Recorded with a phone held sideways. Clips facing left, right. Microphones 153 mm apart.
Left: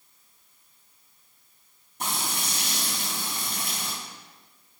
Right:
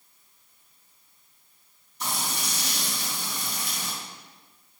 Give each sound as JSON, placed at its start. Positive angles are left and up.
{"t": 2.0, "sound": "frying", "side_deg": 55, "distance_m": 4.5}